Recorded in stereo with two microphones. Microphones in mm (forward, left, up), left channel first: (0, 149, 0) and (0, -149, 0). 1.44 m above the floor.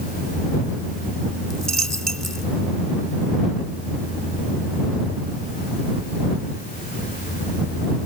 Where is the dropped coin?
60° right (ahead or behind).